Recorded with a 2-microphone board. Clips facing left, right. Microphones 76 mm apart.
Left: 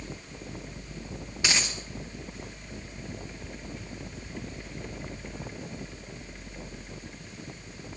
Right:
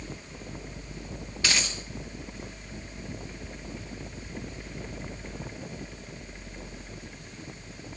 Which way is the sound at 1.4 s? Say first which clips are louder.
Even; 20° left (ahead or behind).